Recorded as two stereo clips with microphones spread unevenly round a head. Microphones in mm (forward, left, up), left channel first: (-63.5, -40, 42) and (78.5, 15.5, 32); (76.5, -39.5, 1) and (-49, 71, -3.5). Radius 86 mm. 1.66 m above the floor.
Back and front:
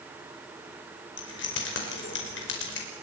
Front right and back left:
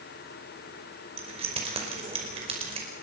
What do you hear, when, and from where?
1.2 s keys jangling: 160° right, 5 m